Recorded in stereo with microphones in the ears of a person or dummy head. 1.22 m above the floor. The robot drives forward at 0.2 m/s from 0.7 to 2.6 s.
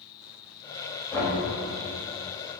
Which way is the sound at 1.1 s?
20° left (ahead or behind).